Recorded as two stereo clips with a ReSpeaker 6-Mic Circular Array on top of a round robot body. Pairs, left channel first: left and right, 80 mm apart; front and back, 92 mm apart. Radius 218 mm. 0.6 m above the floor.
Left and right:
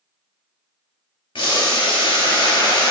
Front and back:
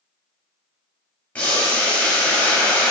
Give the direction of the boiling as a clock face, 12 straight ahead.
10 o'clock.